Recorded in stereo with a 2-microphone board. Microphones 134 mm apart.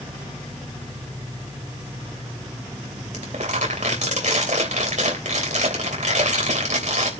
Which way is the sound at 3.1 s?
70° right (ahead or behind).